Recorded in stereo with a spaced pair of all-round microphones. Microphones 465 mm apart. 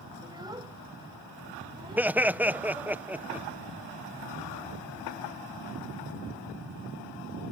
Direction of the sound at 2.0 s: 5° right (ahead or behind).